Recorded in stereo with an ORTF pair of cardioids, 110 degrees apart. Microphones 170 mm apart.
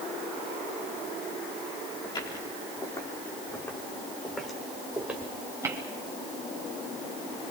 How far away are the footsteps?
About 7.5 m.